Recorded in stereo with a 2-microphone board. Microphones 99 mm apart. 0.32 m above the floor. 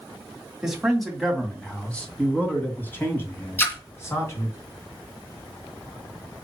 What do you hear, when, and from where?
0.6 s a man speaking: 5° right (ahead or behind), 2 m; by 4.6 s 30° left (ahead or behind), 3 m
3.6 s a splash: 20° left (ahead or behind), 2.5 m